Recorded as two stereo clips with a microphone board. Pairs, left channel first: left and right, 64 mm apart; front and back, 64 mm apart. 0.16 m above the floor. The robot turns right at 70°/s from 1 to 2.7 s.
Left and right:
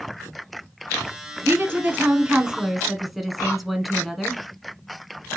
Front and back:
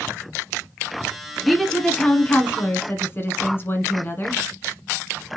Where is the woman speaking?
95° right, 1.3 m; by 4.4 s 5° right, 1.3 m.